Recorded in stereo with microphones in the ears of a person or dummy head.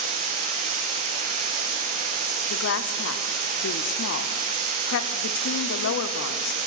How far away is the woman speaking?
About 0.6 m.